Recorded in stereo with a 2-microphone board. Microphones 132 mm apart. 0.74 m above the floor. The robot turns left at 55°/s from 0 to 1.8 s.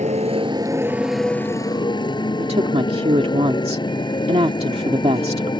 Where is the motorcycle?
115° right; by 5.6 s 145° left.